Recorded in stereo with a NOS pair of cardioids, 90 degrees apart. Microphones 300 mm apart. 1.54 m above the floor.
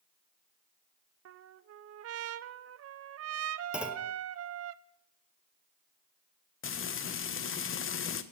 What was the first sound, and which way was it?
A trumpet, 50° right.